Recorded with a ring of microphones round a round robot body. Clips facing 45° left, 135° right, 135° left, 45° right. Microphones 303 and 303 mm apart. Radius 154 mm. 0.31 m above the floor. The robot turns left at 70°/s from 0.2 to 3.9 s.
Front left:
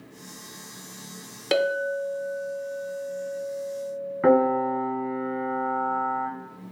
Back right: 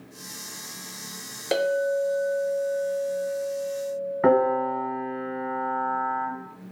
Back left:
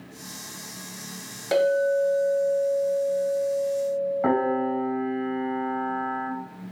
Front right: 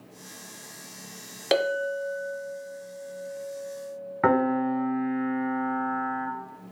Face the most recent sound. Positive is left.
turn(degrees=-45)